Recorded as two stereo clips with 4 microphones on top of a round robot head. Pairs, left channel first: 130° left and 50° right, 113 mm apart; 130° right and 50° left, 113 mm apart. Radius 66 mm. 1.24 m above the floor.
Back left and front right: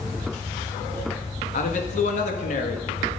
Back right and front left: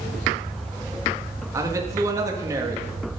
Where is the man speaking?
115° left, 1.8 m.